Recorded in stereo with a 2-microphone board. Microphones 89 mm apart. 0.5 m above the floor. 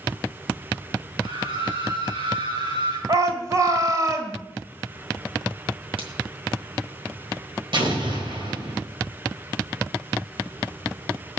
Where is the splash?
80° right, 3 m.